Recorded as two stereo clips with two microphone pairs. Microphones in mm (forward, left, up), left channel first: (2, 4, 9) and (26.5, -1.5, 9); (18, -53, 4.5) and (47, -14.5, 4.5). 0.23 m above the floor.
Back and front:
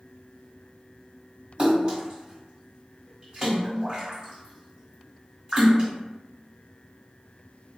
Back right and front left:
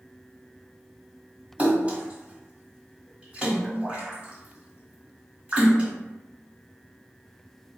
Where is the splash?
20° left, 1.5 m.